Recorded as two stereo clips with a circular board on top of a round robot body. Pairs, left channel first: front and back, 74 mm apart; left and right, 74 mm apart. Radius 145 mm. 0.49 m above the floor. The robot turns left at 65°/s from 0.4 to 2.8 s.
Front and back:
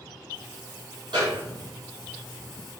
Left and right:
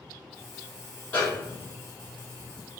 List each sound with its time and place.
1.1 s a snare drum: 155° left, 2.5 m; by 1.7 s 115° left, 2.5 m